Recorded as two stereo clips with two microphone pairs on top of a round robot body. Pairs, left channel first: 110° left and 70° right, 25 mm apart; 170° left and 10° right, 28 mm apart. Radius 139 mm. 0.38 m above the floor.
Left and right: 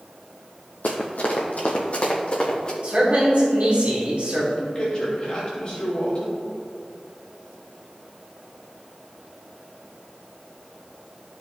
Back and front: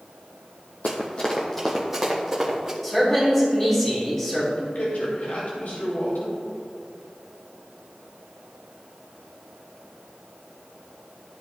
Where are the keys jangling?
I don't hear keys jangling.